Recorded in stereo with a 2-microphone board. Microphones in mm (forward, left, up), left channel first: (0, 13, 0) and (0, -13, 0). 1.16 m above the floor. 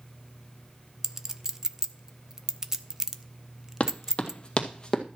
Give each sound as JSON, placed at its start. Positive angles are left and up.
{"t": 1.0, "sound": "a clink", "side_deg": -20, "distance_m": 0.8}
{"t": 3.8, "sound": "running footsteps", "side_deg": 45, "distance_m": 2.5}